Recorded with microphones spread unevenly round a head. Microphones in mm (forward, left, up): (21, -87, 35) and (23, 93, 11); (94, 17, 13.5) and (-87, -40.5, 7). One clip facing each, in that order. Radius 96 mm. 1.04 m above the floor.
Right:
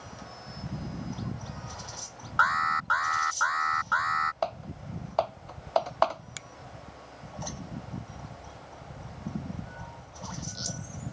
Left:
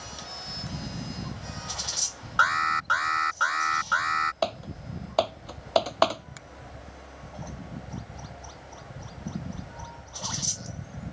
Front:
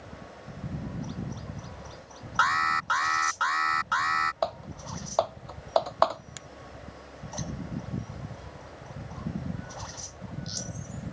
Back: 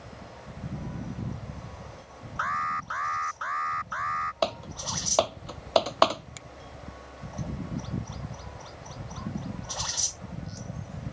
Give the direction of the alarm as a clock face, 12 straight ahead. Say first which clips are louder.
Left 1 dB, front 5 dB; 11 o'clock.